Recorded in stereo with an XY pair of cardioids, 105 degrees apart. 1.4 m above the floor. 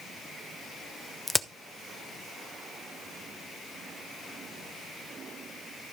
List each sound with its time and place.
1.3 s a crack: 10° left, 0.8 m